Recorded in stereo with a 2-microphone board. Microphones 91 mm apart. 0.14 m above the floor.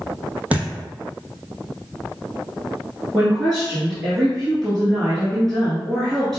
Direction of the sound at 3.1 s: 5° left (ahead or behind).